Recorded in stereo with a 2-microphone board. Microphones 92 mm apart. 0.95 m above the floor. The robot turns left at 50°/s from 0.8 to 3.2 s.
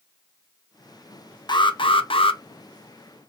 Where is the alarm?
125° left, 0.6 m; by 2.4 s 80° left, 0.6 m.